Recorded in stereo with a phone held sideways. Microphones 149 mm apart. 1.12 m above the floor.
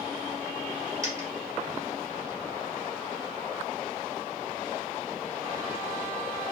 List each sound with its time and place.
1.0 s a dropped coin: 25° right (ahead or behind), 2 m